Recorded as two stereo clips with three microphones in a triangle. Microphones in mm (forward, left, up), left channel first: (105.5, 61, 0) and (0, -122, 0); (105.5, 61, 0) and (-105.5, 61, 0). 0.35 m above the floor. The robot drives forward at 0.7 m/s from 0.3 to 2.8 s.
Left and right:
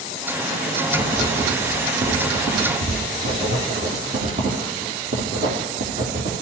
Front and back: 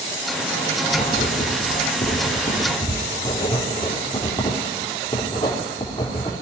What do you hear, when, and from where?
0.9 s writing: 50° right, 4.5 m; by 6.3 s 70° right, 3.5 m